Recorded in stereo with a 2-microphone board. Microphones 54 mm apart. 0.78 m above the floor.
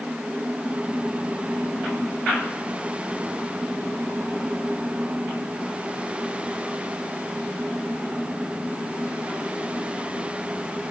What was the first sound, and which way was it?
Only background noise.